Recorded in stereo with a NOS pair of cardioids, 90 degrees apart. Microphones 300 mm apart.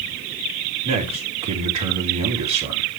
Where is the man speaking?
70° right, 4 m.